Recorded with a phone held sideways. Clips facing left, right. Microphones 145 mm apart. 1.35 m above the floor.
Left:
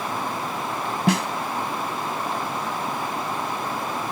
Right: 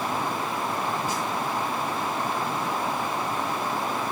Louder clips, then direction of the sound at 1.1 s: Left 7 dB; 75° left (ahead or behind).